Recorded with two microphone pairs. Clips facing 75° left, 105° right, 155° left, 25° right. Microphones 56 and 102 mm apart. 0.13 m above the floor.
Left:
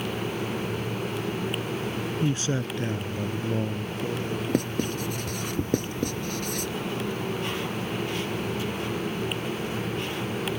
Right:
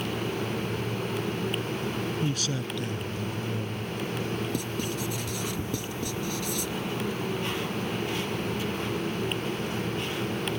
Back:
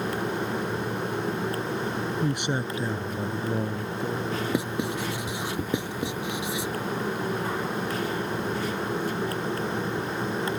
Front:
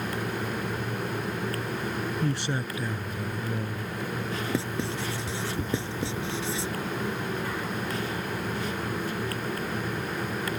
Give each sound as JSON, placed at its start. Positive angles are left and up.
{"t": 2.2, "sound": "a man speaking", "azimuth_deg": 100}
{"t": 4.5, "sound": "writing", "azimuth_deg": 85}